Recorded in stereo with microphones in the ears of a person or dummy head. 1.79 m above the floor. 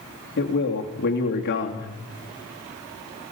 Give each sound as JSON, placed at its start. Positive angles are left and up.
{"t": 0.4, "sound": "a man speaking", "side_deg": 65, "distance_m": 2.5}